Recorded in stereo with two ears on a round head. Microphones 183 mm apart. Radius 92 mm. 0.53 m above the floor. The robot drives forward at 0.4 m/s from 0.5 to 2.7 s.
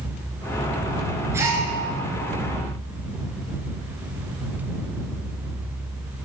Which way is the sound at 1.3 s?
15° right (ahead or behind).